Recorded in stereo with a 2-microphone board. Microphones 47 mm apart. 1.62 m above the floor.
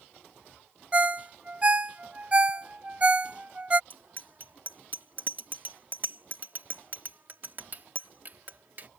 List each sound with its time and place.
0.9 s a ringtone: 25° right (ahead or behind)
3.9 s a bicycle bell: 45° right (ahead or behind)